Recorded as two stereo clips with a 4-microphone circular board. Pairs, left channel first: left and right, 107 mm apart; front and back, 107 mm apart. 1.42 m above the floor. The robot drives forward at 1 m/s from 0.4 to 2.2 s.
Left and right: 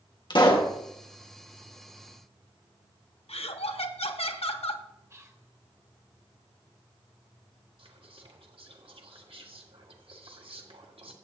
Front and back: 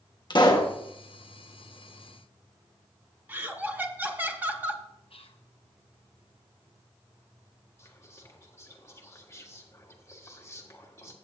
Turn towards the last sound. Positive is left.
turn(degrees=-65)